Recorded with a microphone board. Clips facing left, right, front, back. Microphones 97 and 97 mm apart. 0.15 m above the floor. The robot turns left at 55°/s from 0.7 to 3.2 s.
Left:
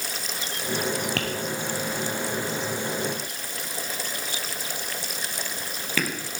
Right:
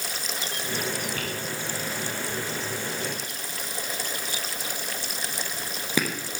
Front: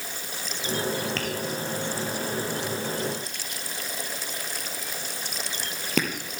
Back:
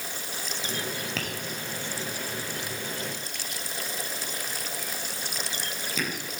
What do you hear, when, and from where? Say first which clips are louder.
1.2 s tapping: left 4 dB, front 5 dB; 95° left, 3.5 m; by 6.1 s 20° right, 3.5 m